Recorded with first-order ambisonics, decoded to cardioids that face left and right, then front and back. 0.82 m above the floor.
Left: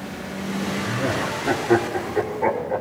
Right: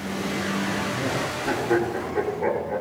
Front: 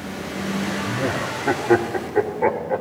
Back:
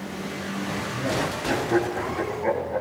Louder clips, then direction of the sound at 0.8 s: Left 2 dB, even; 15° left.